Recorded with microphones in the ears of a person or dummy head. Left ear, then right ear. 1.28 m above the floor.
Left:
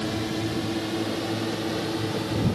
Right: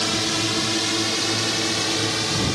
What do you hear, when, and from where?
0.0 s a drone: 50° right (ahead or behind); by 2.6 s 60° right (ahead or behind)